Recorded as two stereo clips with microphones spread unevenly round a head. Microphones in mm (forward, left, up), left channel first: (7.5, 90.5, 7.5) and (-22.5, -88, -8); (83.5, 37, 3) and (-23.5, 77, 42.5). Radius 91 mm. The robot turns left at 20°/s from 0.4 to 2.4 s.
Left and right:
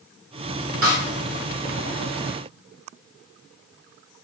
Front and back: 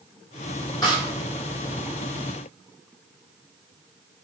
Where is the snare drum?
105° right, 1.1 m.